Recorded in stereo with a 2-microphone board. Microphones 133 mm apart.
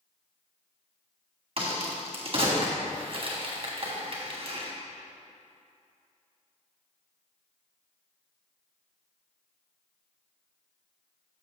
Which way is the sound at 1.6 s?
45° right (ahead or behind).